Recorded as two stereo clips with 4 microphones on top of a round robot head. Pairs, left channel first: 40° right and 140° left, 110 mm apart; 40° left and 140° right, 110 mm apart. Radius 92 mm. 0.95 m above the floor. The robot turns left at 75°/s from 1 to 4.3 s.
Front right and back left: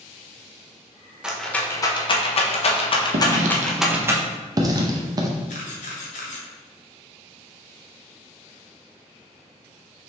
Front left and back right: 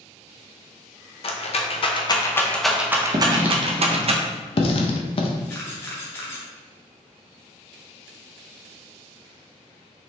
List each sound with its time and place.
1.2 s a rattle: 60° left, 0.7 m; by 4.1 s 160° right, 0.7 m
3.1 s writing: 170° left, 0.5 m; by 5.3 s 80° left, 0.5 m
5.5 s a camera shutter: 30° right, 0.6 m